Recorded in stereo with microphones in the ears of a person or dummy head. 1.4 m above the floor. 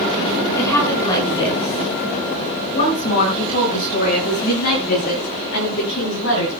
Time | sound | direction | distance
0.6 | a woman speaking | 15° left (ahead or behind) | 7.5 m